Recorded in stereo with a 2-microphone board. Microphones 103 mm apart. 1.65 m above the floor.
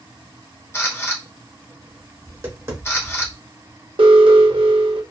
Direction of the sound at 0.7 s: 25° left (ahead or behind).